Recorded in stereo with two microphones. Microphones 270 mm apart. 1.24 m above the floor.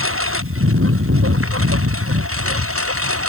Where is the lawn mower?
50° right (ahead or behind); by 3.3 s 55° right (ahead or behind).